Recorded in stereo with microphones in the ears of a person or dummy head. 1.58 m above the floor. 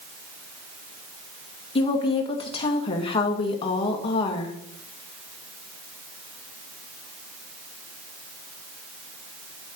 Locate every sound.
1.8 s a woman speaking: 30° left (ahead or behind), 2 m